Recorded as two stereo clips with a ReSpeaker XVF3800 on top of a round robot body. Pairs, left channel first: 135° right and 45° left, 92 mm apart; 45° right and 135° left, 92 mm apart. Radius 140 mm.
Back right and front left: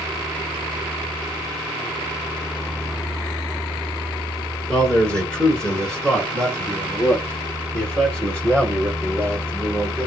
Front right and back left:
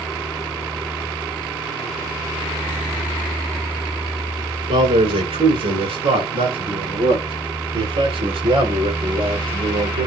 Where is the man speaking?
145° left, 5.5 m.